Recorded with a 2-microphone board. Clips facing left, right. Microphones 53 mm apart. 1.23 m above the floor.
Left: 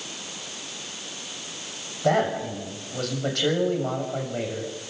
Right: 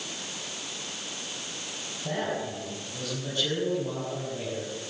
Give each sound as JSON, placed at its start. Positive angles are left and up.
{"t": 2.0, "sound": "a man speaking", "side_deg": 85, "distance_m": 6.5}